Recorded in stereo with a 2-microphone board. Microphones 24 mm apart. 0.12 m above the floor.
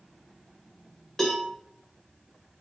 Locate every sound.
1.2 s a cowbell: 15° left (ahead or behind), 1.1 m